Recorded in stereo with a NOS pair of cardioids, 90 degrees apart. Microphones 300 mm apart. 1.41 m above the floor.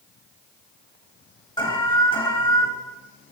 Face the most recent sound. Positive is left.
turn(degrees=15)